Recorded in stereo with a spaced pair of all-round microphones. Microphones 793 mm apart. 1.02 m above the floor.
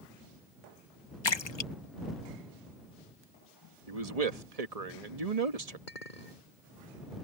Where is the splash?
35° left (ahead or behind).